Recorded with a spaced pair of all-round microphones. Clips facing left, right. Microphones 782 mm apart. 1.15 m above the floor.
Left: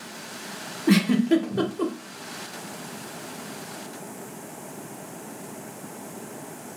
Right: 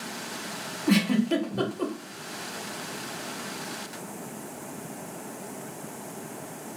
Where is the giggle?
55° left (ahead or behind), 0.8 m.